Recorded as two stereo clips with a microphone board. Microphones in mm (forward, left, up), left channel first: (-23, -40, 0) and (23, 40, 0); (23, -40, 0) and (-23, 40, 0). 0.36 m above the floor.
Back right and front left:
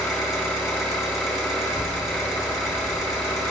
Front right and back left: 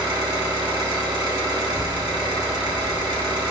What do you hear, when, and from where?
0.0 s an engine running: 150° left, 2.5 m
1.6 s a child speaking: 125° right, 0.6 m